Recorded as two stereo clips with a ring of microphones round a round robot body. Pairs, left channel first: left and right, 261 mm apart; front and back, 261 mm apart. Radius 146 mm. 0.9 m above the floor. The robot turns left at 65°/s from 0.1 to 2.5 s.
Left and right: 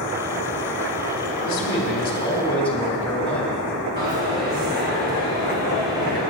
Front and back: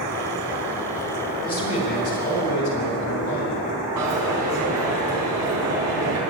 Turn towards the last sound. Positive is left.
turn(degrees=-150)